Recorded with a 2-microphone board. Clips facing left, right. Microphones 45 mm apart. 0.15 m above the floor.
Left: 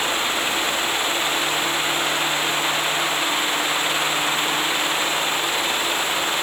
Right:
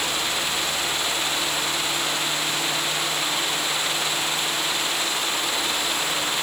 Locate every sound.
Only background noise.